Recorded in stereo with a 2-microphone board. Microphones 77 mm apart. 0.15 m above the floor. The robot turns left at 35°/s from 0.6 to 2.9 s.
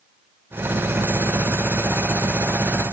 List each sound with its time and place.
Only background noise.